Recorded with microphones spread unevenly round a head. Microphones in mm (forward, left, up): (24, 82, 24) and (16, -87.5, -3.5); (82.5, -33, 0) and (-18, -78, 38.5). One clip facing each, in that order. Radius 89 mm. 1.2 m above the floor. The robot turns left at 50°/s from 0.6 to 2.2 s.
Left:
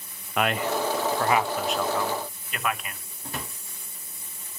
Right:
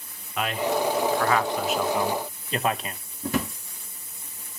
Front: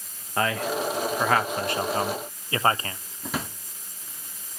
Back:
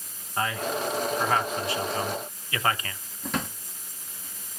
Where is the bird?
No bird in this recording.